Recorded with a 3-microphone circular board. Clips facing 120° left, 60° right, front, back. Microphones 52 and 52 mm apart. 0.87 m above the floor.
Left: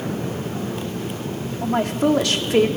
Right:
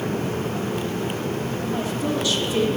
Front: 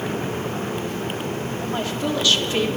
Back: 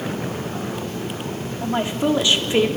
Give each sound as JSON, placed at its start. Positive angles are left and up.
{"t": 1.6, "sound": "a woman speaking", "azimuth_deg": 110, "distance_m": 2.0}